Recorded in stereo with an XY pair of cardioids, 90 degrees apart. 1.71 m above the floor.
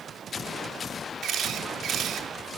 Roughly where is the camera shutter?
Right.